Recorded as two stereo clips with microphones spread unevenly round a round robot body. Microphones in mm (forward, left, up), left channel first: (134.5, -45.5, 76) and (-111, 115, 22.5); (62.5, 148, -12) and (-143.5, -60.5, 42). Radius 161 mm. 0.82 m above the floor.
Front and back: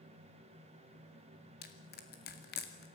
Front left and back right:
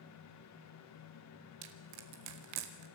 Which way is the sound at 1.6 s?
95° right.